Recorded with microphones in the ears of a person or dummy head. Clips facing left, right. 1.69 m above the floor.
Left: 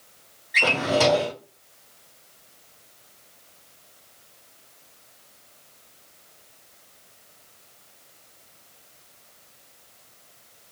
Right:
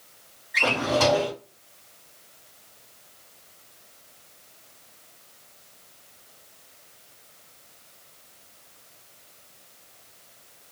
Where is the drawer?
50° left (ahead or behind), 2 m.